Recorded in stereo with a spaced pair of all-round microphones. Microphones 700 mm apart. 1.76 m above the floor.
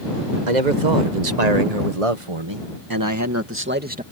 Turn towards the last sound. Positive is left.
turn(degrees=-10)  # may be behind; listen again after turning